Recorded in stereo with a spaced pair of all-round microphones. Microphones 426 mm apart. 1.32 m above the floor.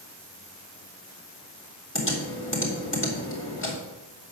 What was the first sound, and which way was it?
Typing on a keyboard, 25° left (ahead or behind).